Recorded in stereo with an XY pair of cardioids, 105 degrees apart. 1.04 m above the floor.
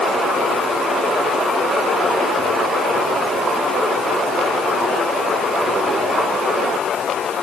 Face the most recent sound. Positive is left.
No sound to turn to.